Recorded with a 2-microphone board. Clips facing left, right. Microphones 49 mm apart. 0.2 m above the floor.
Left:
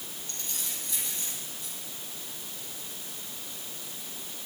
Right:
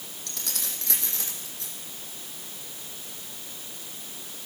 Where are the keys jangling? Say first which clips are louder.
Right 4 dB; 80° right, 5.5 m; by 1.7 s 85° right, 7 m.